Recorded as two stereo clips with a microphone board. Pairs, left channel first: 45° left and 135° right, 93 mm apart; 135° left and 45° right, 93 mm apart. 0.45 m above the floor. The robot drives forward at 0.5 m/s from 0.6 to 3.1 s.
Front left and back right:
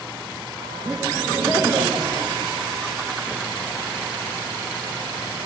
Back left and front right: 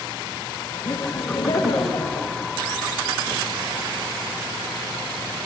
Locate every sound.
0.8 s laughter: 170° left, 1.3 m; by 2.4 s 175° left, 1.9 m